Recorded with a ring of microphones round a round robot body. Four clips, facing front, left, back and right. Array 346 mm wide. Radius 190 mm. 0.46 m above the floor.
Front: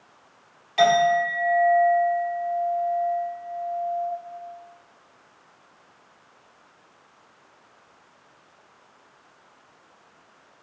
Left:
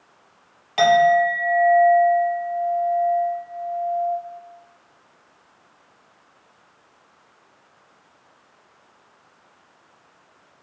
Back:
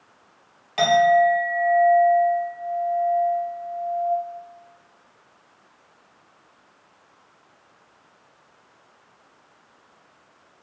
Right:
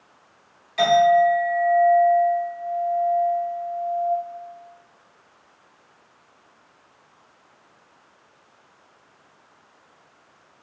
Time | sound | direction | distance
0.8 | a clink | 120° left | 2 m